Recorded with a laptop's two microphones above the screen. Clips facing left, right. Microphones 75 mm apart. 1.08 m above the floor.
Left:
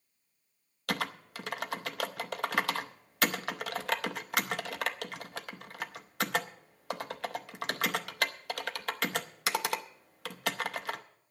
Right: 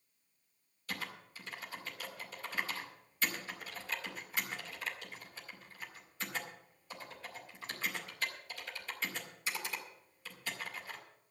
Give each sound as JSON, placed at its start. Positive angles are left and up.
{"t": 0.9, "sound": "typing on a keyboard", "side_deg": 75, "distance_m": 0.6}